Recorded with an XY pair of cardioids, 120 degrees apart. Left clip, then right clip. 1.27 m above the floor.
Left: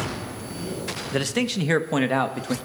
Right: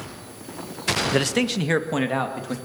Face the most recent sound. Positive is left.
turn(degrees=20)